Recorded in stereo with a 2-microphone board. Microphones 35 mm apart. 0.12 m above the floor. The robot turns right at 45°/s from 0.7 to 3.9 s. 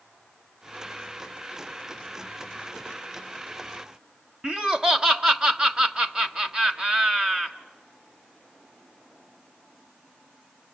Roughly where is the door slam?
No door slam in this recording.